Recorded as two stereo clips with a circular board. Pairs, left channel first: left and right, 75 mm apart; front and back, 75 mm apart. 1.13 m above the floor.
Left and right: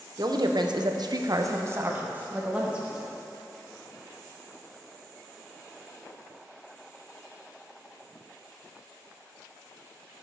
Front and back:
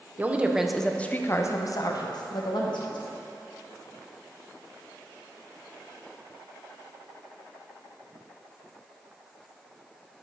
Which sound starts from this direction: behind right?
A woman speaking, at 0.2 s.